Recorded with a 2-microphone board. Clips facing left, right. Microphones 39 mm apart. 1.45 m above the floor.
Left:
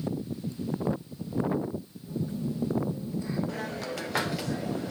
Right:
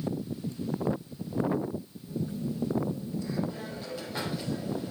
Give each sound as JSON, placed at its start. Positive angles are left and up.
{"t": 2.1, "sound": "a phone buzzing", "side_deg": 35, "distance_m": 2.5}
{"t": 3.5, "sound": "a hiss", "side_deg": 80, "distance_m": 0.8}